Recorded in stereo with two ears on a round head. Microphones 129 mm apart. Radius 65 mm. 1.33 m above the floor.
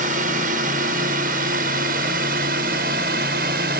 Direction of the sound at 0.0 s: 60° right (ahead or behind).